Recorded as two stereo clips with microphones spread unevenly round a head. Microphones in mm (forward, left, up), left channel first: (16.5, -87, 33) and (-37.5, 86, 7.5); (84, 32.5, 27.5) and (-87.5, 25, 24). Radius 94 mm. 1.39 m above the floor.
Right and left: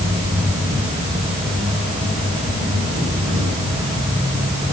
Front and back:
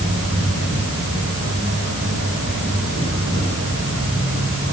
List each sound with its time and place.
0.0 s an insect: 165° left, 6.5 m